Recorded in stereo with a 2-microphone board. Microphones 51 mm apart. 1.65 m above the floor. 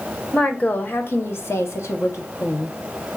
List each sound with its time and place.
0.3 s a woman speaking: 25° left (ahead or behind), 1.0 m; by 2.8 s 65° left (ahead or behind), 1.3 m